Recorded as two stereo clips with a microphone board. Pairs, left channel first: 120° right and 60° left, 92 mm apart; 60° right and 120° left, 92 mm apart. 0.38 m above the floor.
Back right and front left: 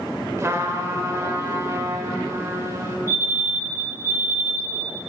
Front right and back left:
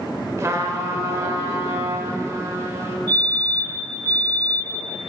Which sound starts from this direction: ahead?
A fire alarm, at 3.1 s.